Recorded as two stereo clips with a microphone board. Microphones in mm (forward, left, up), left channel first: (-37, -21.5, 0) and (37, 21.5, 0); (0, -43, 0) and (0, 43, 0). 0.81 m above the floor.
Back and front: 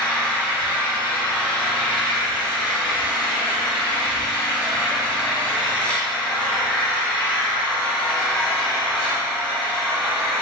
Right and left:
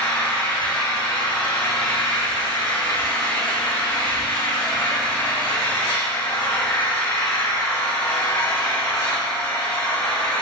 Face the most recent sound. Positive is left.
turn(degrees=-75)